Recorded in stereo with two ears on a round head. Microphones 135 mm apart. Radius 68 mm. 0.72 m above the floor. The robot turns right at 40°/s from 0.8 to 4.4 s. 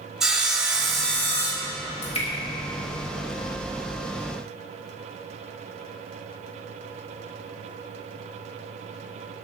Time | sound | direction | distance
0.2 | sawing | 5° right | 0.9 m
2.0 | dripping | 50° left (ahead or behind) | 1.6 m